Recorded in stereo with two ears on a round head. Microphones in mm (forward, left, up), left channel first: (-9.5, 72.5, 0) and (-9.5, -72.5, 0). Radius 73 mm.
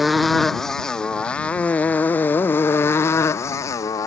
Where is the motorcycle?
Centre (ahead or behind); by 4.1 s 20° left (ahead or behind).